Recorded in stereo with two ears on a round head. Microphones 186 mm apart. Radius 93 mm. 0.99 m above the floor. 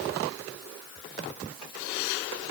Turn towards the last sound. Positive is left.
No sound to turn to.